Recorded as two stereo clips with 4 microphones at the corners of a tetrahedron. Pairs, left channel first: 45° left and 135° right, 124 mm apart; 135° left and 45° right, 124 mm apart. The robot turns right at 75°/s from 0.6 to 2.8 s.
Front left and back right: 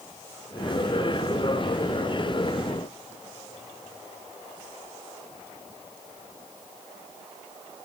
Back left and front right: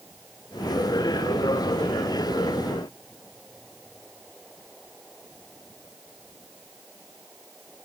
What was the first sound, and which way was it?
Only background noise.